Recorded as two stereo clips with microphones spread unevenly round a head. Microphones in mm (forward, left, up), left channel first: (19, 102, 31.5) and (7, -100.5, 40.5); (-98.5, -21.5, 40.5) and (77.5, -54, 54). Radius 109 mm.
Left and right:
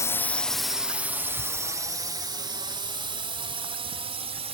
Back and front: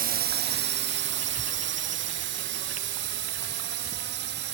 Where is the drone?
15° left; by 4.5 s 30° right.